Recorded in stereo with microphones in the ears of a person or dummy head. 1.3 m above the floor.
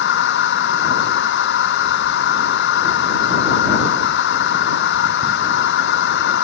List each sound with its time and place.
0.0 s a machine running: 65° left (ahead or behind)